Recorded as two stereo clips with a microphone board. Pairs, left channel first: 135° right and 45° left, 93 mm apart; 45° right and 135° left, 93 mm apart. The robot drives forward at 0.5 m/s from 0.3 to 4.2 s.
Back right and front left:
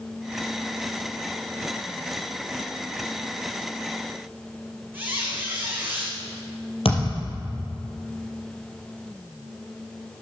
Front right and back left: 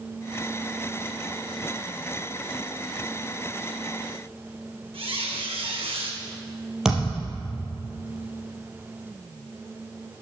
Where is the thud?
140° right, 4 m.